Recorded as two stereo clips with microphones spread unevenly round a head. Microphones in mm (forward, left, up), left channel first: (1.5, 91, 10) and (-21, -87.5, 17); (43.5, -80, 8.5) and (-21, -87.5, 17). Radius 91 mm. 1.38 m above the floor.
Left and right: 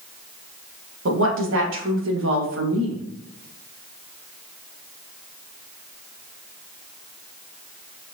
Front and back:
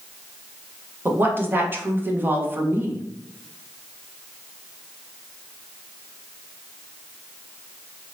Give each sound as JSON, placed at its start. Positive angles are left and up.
{"t": 1.1, "sound": "a woman speaking", "azimuth_deg": -115, "distance_m": 1.5}